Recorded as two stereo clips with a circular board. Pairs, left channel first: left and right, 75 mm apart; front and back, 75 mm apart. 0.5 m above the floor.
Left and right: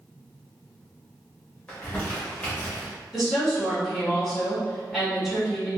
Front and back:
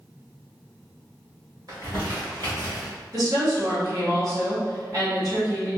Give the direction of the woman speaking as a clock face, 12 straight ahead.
6 o'clock.